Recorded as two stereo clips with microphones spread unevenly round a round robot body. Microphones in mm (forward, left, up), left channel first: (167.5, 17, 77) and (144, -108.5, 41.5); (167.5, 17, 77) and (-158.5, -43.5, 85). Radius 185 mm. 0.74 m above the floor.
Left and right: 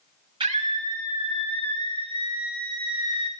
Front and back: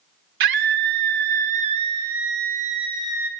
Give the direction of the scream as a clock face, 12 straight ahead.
5 o'clock.